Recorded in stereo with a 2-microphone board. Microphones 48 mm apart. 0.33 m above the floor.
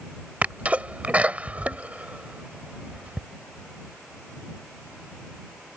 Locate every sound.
0.4 s a sneeze: 30° right (ahead or behind)